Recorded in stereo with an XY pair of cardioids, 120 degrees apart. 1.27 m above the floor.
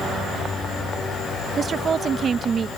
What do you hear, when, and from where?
1.6 s a woman speaking: 40° right